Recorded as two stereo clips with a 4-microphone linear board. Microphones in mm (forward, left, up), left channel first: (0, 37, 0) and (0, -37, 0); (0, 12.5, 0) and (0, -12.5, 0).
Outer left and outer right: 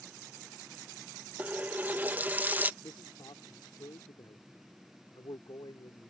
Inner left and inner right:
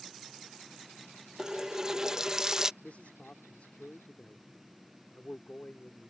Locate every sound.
1.4 s a running tap: 25° right (ahead or behind)
2.8 s a man speaking: 85° left